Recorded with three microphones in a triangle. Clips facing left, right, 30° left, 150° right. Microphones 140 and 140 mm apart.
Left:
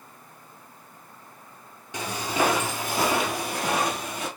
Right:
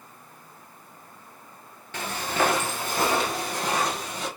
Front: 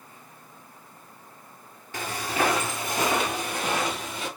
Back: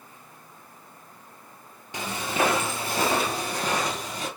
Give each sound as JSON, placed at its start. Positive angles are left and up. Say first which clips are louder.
{"t": 1.9, "sound": "footsteps", "louder": "left 1 dB, back 1 dB", "azimuth_deg": 155, "distance_m": 1.4}